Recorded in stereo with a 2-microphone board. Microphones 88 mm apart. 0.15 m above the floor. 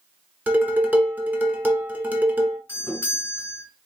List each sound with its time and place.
0.5 s dishes clattering: 20° right (ahead or behind), 1.0 m
2.7 s a doorbell: 20° left (ahead or behind), 2 m